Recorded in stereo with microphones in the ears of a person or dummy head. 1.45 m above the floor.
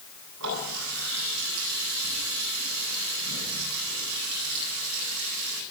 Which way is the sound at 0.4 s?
80° right.